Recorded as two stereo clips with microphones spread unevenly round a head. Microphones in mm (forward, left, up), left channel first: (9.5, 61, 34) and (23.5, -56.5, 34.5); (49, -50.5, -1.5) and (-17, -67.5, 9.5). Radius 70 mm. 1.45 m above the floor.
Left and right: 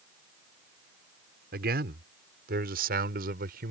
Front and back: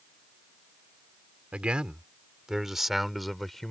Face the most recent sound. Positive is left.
turn(degrees=-75)